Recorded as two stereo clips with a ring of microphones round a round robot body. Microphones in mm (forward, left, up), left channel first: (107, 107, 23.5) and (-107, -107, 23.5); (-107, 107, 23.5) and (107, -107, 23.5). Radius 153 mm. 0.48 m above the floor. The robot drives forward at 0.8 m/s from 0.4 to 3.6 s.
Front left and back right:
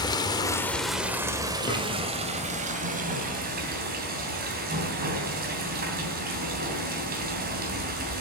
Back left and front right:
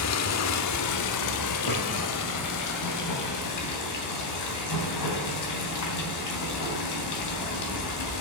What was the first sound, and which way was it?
Running water, 120° left.